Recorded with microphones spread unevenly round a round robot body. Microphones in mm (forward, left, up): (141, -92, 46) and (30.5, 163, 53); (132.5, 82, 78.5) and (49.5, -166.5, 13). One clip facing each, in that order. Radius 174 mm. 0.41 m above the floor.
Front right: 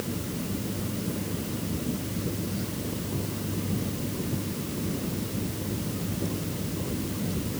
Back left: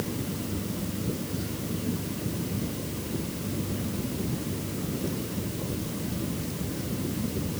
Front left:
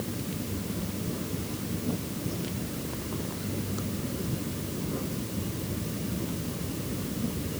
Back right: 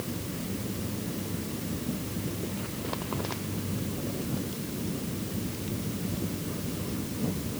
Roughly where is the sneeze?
No sneeze in this recording.